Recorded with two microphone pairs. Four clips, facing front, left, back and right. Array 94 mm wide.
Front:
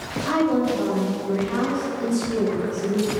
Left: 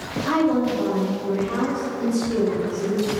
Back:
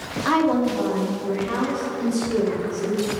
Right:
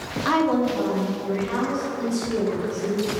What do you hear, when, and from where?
0.2 s a woman speaking: 135° right, 1.7 m; by 3.1 s 140° right, 5 m